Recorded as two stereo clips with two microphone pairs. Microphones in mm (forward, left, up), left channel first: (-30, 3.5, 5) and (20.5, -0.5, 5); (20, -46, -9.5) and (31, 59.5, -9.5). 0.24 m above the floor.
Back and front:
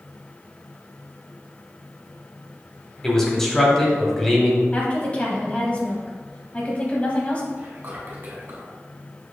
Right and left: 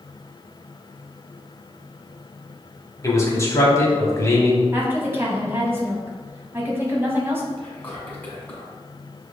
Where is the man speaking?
115° right, 1.0 m.